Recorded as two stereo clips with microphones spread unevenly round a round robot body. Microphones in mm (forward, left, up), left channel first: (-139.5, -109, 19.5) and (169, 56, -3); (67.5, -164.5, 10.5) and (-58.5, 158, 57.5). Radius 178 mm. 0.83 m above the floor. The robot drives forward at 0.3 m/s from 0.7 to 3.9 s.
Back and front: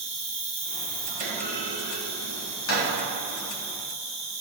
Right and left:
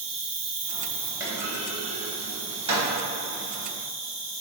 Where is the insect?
130° left, 1.4 m; by 4.4 s 150° left, 2 m.